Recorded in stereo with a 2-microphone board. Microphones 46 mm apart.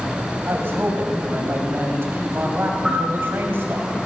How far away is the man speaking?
About 2.5 m.